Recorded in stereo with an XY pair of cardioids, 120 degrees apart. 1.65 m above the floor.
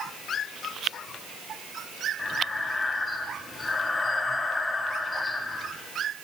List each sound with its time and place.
2.2 s breathing: 20° left, 2.5 m